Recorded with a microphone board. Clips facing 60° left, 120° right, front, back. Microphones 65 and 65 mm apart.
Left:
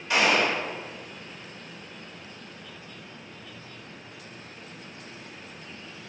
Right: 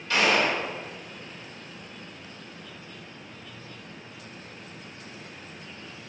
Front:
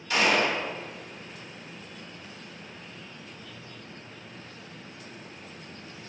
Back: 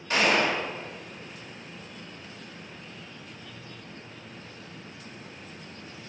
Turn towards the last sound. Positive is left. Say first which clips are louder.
# even, even
turn(degrees=130)